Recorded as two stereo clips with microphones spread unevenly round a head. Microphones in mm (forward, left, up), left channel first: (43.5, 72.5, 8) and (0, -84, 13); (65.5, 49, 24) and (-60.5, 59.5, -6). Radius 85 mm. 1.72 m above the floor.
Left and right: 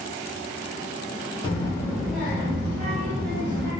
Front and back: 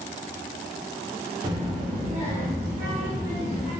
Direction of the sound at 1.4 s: 120° left.